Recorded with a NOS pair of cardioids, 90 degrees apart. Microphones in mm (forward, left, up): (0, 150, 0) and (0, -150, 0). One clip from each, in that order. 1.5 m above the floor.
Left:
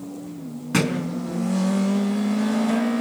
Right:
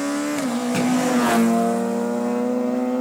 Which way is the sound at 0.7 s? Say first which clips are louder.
Even; 35° left.